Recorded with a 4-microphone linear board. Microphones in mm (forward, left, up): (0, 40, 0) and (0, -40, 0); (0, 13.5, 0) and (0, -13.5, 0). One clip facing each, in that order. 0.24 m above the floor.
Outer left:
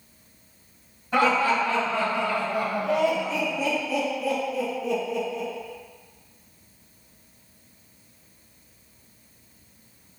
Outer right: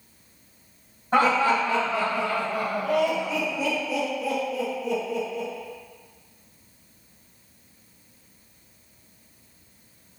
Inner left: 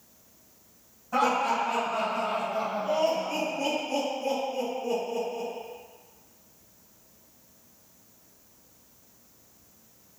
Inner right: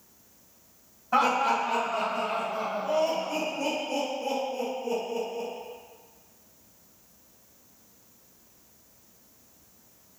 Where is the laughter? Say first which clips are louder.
Outer right 1 dB, inner right 1 dB; 40° right (ahead or behind), 1.3 m; by 5.5 s 65° left (ahead or behind), 2.5 m.